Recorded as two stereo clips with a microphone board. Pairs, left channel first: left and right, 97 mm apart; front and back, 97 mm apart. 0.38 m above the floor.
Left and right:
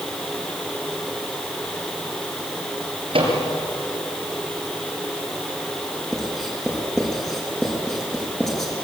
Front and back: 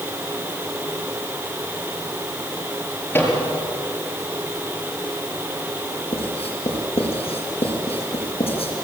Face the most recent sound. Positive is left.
turn(degrees=5)